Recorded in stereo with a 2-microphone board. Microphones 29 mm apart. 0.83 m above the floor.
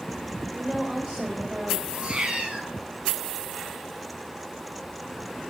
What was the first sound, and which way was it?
A woman speaking, 35° right (ahead or behind).